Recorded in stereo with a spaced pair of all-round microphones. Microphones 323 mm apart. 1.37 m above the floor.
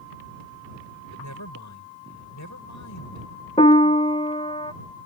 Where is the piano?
20° left (ahead or behind).